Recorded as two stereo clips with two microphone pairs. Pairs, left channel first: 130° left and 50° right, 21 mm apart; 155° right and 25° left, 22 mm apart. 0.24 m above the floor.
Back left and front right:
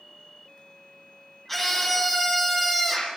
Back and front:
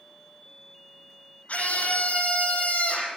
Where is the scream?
145° right, 8.5 m.